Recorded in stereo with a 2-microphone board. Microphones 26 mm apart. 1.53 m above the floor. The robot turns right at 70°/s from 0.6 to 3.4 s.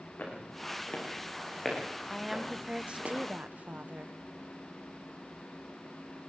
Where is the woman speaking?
170° left, 0.9 m; by 4.2 s 100° right, 0.9 m.